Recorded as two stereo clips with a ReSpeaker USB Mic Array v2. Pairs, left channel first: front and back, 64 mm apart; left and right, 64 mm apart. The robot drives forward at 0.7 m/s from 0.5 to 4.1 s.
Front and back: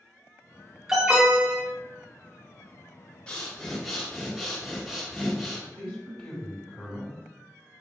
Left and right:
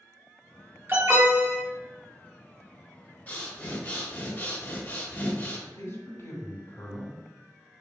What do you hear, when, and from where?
0.9 s an alarm: 105° right, 1.7 m; by 1.6 s 125° right, 1.8 m
3.3 s breathing: 55° left, 1.6 m; by 5.6 s 100° left, 1.5 m
5.7 s a man speaking: 85° left, 2.0 m